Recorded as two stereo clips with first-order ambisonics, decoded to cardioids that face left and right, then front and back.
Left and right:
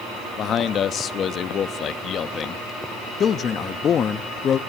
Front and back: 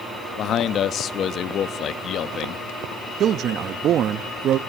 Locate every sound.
0.4 s a man speaking: 40° left, 0.8 m
3.2 s a man speaking: 145° left, 0.7 m